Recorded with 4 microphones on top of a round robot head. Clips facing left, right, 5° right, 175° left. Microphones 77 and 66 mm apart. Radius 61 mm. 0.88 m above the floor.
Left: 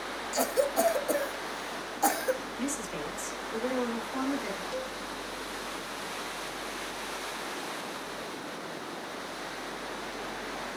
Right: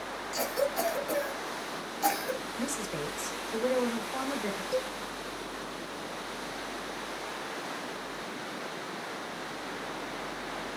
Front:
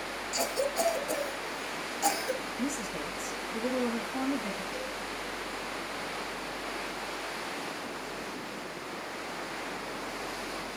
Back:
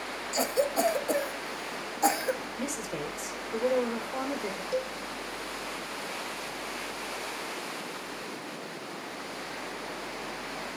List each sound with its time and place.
0.3 s a cough: 135° left, 1.4 m
2.6 s a woman speaking: 165° right, 4 m
4.7 s a cowbell: 160° right, 3.5 m